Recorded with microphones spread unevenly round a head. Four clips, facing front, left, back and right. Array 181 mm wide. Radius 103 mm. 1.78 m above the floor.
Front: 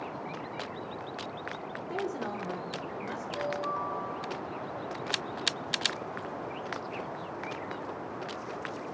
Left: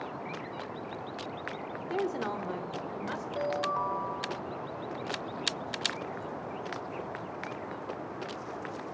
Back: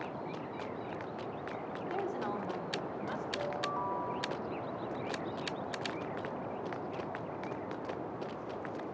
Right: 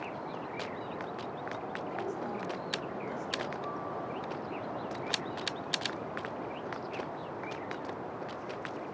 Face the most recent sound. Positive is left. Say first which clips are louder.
# left 6 dB, front 5 dB
turn(degrees=75)